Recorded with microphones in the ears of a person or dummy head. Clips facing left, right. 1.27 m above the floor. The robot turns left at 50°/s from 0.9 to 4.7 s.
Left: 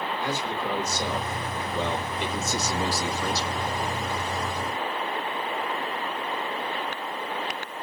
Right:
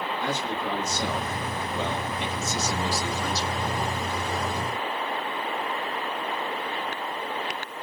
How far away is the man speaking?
About 2.5 m.